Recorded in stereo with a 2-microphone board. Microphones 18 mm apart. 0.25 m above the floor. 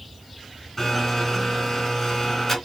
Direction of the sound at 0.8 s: 10° left (ahead or behind).